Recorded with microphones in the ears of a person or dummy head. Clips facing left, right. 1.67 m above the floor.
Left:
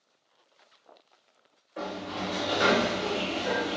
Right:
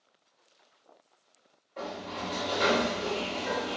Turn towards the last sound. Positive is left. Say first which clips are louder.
# left 3 dB
turn(degrees=10)  # may be behind; listen again after turning